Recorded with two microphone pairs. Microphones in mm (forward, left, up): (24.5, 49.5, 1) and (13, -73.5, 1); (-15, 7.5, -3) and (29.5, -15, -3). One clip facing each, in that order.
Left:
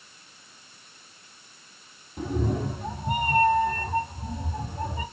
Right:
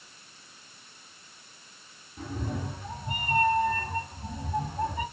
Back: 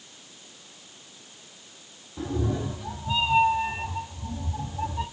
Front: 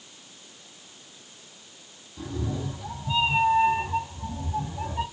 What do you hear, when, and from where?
2.2 s a cat meowing: 100° left, 0.6 m; by 5.0 s 15° left, 1.5 m